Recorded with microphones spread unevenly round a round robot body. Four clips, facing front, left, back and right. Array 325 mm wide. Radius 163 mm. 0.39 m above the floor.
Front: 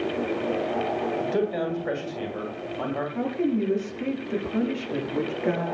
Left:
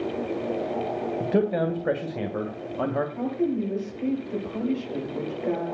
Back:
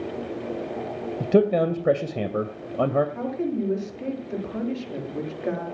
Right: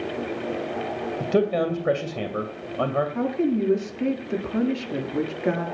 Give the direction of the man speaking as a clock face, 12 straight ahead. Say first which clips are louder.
Right 2 dB, back 11 dB; 6 o'clock.